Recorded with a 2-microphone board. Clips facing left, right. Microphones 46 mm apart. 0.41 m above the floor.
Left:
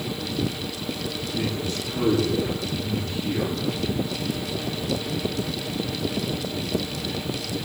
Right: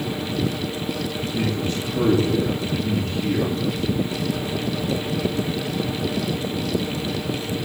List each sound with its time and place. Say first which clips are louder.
1.3 s a man speaking: right 4 dB; 60° right (ahead or behind), 8.5 m